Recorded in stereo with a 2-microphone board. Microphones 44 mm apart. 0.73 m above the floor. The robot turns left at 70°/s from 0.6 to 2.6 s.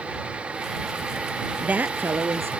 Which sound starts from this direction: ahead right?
A woman speaking, at 1.6 s.